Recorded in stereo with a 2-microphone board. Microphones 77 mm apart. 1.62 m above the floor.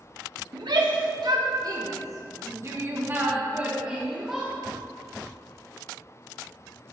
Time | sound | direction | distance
0.5 | a shout | 70° right (ahead or behind) | 1.7 m